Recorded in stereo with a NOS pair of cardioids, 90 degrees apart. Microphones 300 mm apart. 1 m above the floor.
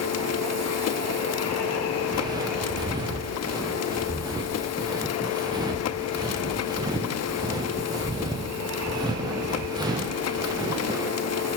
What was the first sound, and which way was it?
A machine running, 55° left.